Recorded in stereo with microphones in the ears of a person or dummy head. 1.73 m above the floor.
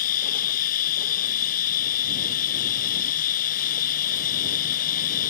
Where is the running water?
45° left (ahead or behind).